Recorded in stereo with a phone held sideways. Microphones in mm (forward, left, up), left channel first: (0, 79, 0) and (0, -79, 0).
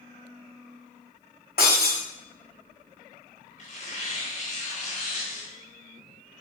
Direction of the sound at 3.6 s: 55° left (ahead or behind).